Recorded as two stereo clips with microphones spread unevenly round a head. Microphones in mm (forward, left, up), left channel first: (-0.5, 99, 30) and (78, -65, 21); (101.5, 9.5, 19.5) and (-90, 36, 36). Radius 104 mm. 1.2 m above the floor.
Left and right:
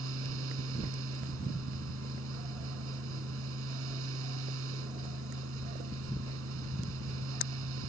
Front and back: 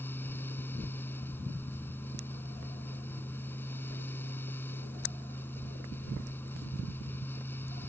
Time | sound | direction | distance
0.0 | a fan | 90° right | ?